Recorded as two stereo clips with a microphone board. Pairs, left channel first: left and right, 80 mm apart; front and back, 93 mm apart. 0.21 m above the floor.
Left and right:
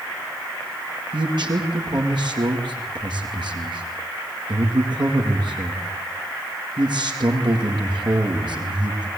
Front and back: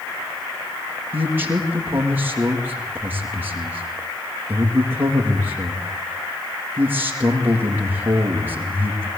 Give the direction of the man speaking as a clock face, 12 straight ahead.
4 o'clock.